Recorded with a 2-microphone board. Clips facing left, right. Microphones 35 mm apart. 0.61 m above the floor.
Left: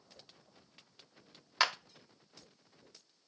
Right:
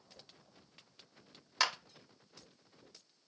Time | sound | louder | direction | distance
1.6 | a clap | left 2 dB | 15° left (ahead or behind) | 0.7 m